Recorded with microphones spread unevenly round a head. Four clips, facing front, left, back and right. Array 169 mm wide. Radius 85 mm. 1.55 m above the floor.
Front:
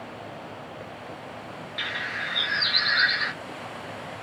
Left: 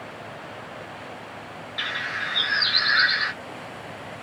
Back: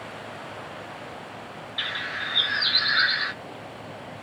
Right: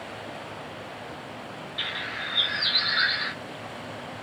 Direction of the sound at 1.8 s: 40° left.